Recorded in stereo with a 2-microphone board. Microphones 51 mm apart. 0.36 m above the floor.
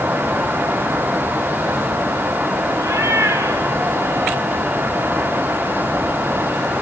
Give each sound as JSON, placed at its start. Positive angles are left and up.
{"t": 2.8, "sound": "a cat meowing", "side_deg": -75, "distance_m": 2.5}